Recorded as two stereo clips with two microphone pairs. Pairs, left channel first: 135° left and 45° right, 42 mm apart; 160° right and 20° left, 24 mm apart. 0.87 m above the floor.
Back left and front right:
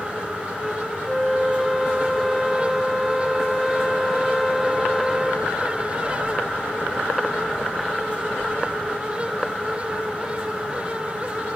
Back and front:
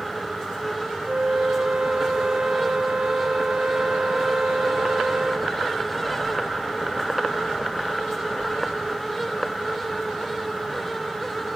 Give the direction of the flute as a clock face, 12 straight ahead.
11 o'clock.